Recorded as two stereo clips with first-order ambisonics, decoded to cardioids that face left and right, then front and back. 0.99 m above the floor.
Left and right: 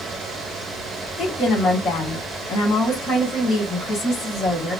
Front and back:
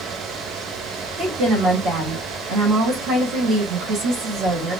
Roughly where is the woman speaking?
Behind left.